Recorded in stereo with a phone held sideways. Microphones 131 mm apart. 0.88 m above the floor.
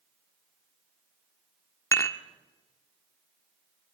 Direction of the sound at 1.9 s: 25° left (ahead or behind).